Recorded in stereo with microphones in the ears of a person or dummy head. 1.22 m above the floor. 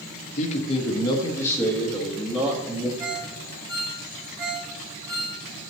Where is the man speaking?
45° left (ahead or behind), 1.2 m; by 2.9 s 15° right (ahead or behind), 1.8 m.